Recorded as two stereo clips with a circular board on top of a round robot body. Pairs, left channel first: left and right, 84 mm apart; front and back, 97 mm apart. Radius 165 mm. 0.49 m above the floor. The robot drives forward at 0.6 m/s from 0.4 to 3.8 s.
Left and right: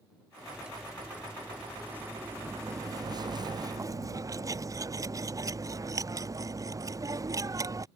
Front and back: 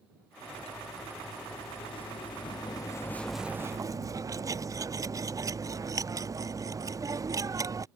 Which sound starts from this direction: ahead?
Cutlery clinking, at 0.4 s.